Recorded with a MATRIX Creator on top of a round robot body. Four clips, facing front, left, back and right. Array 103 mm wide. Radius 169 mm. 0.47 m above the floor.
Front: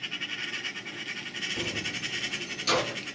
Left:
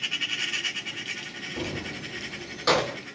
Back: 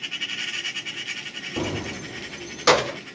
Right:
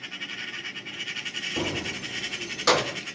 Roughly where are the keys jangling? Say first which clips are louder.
Right 3 dB, back 9 dB; behind right.